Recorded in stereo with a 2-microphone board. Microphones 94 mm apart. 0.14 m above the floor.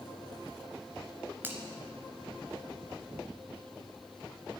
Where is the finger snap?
20° right (ahead or behind), 1.8 m.